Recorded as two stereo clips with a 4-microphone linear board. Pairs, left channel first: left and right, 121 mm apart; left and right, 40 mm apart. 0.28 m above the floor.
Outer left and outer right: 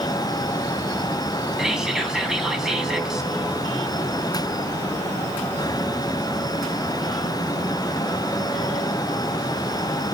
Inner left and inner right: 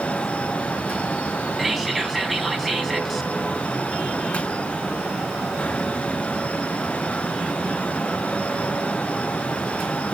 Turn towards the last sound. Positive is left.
turn(degrees=-5)  # may be behind; listen again after turning